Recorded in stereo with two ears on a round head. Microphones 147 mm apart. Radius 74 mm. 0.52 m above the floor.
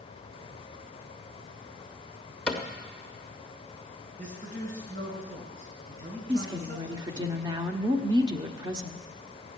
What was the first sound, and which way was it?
A cupboard door, 5° left (ahead or behind).